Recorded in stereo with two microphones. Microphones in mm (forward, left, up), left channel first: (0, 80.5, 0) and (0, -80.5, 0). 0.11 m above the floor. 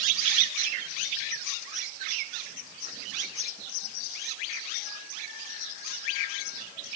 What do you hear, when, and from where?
Only background noise.